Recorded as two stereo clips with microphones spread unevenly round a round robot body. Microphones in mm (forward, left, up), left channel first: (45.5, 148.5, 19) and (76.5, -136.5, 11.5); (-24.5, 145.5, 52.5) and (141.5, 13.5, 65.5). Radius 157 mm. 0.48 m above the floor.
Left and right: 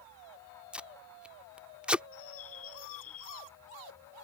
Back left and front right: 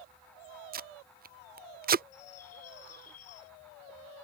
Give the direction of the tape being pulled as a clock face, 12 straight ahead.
12 o'clock.